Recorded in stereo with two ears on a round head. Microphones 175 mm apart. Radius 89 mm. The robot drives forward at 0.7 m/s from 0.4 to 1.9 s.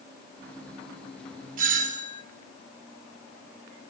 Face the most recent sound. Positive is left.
turn(degrees=-40)  # may be behind; listen again after turning